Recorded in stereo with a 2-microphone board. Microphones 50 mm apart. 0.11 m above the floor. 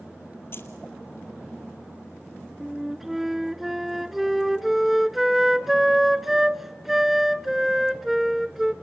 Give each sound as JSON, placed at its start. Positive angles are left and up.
{"t": 0.5, "sound": "keys jangling", "side_deg": 50, "distance_m": 1.8}
{"t": 2.6, "sound": "a flute", "side_deg": -5, "distance_m": 0.6}